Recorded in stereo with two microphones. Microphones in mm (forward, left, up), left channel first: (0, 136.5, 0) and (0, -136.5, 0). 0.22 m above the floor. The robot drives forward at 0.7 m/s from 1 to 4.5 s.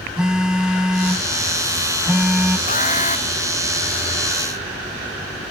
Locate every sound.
0.2 s a phone buzzing: 5° right (ahead or behind)
2.7 s an alarm: 30° left (ahead or behind)